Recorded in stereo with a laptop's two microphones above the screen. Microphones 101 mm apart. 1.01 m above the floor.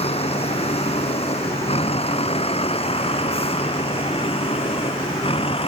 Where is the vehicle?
85° left; by 5.7 s 70° left (ahead or behind).